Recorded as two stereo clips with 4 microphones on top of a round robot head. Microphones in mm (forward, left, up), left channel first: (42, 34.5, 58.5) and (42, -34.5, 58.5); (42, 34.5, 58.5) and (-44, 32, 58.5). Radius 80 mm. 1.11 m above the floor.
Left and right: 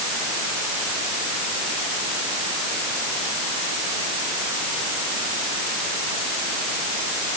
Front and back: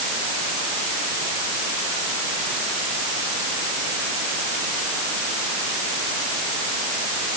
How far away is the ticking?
No ticking in this recording.